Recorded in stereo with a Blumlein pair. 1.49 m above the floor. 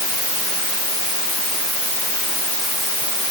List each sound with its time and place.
Only background noise.